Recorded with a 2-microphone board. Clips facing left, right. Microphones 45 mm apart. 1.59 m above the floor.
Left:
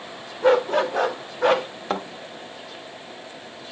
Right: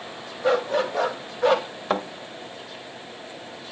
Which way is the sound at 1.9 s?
Centre (ahead or behind).